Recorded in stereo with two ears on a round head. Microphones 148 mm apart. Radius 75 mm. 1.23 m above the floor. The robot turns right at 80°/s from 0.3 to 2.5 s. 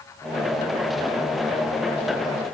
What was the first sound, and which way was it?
Only background noise.